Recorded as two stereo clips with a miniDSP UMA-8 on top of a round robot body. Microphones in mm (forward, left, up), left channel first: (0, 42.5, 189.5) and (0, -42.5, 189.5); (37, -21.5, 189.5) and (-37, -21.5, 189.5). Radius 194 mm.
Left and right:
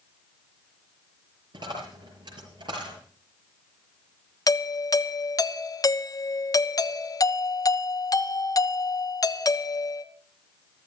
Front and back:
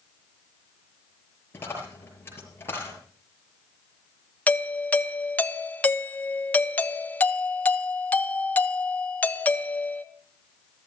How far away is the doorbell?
About 1.4 m.